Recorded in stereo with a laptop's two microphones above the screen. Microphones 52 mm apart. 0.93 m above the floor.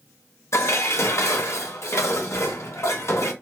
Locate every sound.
0.5 s dishes clattering: 60° left (ahead or behind), 0.8 m